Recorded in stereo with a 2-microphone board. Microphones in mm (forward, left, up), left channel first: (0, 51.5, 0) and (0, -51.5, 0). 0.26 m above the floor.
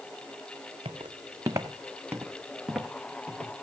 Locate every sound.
0.8 s footsteps: 55° right (ahead or behind), 1.2 m; by 3.5 s 10° left (ahead or behind), 3 m